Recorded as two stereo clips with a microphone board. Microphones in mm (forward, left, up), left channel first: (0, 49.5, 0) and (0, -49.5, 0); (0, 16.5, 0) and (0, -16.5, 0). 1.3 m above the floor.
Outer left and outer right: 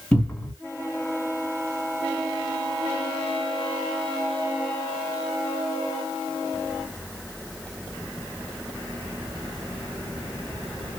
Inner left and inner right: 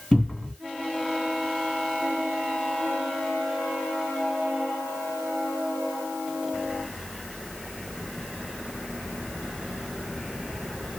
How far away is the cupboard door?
About 2 m.